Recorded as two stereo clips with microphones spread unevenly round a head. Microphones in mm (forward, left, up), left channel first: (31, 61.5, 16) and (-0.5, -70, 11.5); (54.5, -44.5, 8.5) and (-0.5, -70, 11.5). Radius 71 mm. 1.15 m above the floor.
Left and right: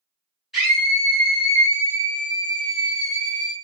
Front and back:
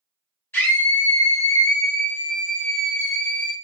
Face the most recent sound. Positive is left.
turn(degrees=-15)